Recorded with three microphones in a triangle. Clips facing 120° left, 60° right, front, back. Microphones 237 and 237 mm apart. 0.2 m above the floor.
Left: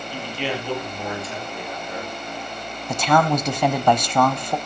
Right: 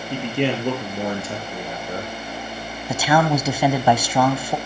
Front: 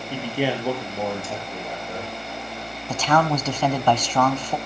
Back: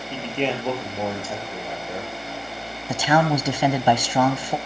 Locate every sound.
0.1 s a man speaking: 80° right, 5 m; by 2.1 s 110° right, 4 m
2.9 s a man speaking: 130° right, 1.1 m